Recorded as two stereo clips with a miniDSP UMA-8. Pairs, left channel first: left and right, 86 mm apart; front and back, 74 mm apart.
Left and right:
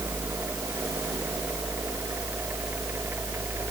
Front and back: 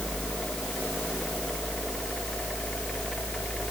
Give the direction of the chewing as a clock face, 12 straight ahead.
No chewing in this recording.